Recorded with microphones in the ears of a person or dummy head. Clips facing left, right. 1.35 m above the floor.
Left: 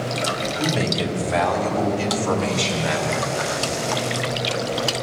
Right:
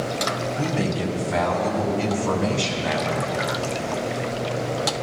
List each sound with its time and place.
0.6 s a man speaking: 75° left (ahead or behind), 3 m; by 3.4 s 70° left (ahead or behind), 6 m